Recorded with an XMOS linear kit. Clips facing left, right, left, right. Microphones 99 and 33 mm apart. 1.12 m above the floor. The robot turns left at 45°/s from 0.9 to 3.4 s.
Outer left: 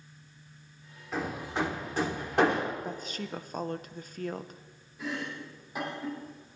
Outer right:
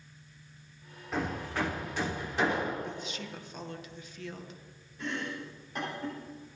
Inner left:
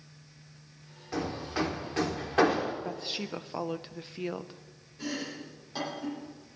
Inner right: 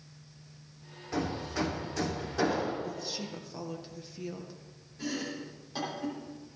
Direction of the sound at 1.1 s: Centre (ahead or behind).